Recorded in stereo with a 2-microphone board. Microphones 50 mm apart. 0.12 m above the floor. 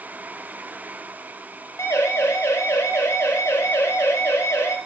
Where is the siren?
80° left, 6.5 m.